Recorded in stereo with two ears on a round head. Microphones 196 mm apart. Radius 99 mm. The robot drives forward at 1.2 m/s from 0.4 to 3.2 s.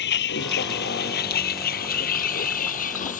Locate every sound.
0.0 s a vehicle: 55° left (ahead or behind); by 3.2 s 40° left (ahead or behind)